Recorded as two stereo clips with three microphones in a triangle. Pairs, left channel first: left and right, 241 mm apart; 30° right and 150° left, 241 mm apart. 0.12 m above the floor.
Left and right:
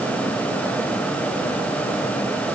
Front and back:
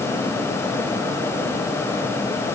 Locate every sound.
Only background noise.